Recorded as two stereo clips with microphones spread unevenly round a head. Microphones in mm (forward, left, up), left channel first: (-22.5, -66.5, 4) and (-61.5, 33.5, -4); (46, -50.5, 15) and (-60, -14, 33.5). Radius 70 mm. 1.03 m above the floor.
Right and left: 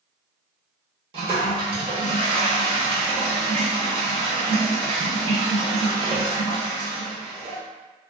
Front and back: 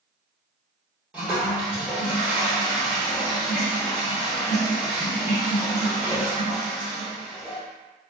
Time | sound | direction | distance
1.1 | a toilet flushing | 100° left | 0.8 m